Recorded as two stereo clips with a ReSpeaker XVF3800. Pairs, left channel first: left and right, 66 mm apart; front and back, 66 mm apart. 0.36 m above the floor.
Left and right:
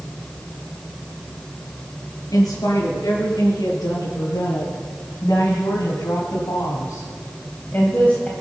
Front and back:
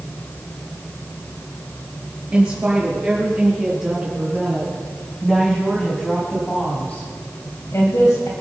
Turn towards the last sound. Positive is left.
turn(degrees=15)